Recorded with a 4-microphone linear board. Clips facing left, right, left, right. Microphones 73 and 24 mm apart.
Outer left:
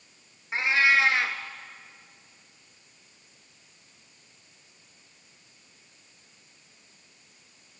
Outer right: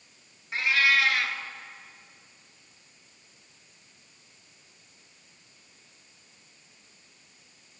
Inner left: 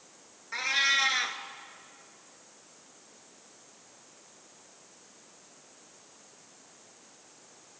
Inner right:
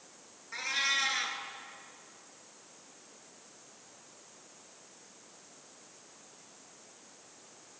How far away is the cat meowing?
About 1.5 m.